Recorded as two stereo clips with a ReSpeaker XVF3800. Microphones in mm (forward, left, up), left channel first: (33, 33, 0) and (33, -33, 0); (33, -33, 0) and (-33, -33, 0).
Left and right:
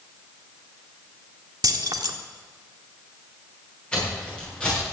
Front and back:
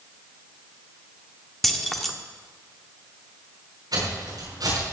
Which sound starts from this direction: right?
Keys jangling, at 1.6 s.